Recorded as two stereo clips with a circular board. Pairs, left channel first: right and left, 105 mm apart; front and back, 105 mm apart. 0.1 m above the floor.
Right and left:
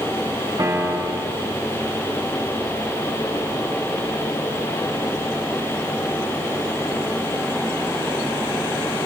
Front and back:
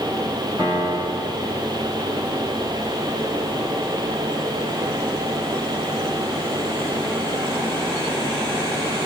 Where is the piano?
135° left, 9.5 m.